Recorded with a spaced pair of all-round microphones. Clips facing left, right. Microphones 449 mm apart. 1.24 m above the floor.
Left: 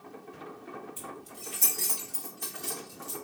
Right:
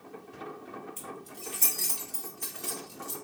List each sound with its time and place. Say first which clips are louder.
1.0 s keys jangling: right 1 dB; 10° left (ahead or behind), 1.8 m; by 3.1 s 70° left (ahead or behind), 2 m